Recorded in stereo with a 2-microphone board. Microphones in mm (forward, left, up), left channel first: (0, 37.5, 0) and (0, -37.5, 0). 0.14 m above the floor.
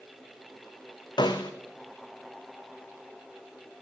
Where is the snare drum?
80° left, 2.5 m.